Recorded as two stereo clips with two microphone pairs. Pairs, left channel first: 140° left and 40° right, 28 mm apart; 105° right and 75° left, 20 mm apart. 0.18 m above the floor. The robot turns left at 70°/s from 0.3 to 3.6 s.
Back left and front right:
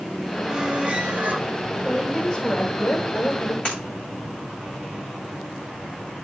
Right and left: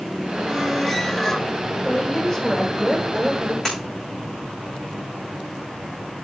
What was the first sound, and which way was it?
A squeak, 15° left.